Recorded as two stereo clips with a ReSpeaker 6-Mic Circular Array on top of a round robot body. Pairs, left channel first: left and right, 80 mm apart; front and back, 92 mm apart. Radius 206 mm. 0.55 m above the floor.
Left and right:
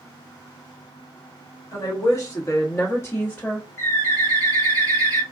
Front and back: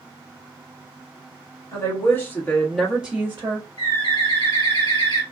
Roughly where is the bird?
Ahead left.